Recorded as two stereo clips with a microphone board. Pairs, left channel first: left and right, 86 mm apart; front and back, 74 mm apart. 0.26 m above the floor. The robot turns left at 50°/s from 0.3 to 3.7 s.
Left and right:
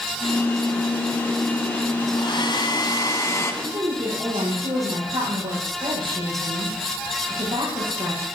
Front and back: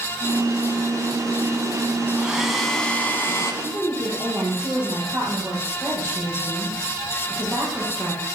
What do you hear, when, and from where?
2.2 s a hair dryer: 105° left, 2 m; by 3.5 s 40° left, 2 m
3.6 s a woman speaking: 115° right, 9 m; by 8.2 s 120° right, 9 m